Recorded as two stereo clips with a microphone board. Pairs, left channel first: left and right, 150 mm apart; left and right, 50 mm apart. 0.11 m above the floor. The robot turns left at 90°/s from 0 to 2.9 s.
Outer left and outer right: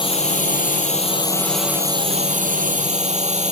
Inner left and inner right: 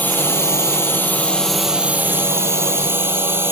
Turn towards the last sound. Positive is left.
turn(degrees=-120)